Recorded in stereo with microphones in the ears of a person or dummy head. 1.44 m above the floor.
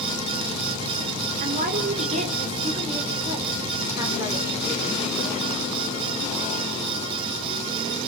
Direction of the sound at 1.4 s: 45° right (ahead or behind).